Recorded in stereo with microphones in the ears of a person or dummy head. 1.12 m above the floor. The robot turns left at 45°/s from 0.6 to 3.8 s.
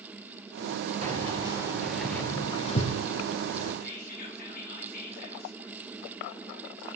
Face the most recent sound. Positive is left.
turn(degrees=50)  # may be behind; listen again after turning